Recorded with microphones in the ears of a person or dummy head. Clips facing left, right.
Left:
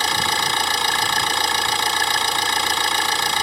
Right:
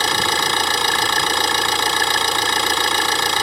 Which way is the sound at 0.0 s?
60° right (ahead or behind).